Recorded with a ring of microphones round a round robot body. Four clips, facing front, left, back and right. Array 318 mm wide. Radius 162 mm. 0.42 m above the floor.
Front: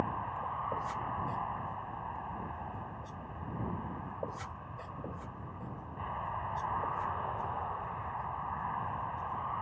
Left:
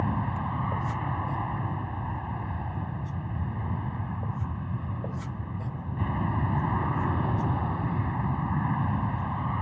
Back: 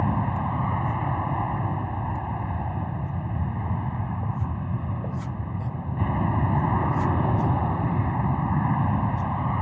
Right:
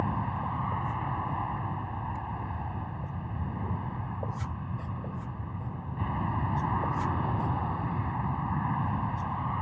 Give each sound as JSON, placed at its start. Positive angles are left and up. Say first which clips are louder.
{"t": 0.0, "sound": "an aircraft", "louder": "left 1 dB, back 9 dB", "azimuth_deg": 170}